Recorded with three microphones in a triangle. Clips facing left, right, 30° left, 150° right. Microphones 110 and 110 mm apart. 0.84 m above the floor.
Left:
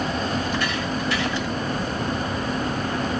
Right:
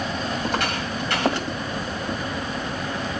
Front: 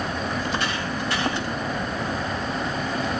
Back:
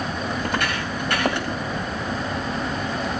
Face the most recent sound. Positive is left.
turn(degrees=-120)